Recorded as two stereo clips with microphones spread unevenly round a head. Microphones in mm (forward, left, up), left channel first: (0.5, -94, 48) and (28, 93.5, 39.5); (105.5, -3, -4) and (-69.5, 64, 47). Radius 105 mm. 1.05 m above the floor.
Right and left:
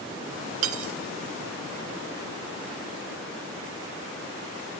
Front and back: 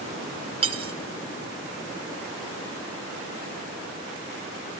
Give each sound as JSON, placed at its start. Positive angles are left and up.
{"t": 0.6, "sound": "cutlery clinking", "azimuth_deg": 100, "distance_m": 1.8}